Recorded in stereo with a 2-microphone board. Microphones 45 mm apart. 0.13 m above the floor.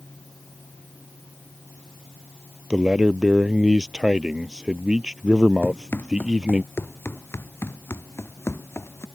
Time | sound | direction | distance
2.7 | a man speaking | 15° right (ahead or behind) | ?
5.6 | running footsteps | 55° left (ahead or behind) | ?